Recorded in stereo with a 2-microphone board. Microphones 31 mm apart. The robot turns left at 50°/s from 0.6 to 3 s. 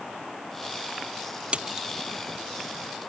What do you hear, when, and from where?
1.5 s a splash: 40° right (ahead or behind); by 1.9 s 20° right (ahead or behind)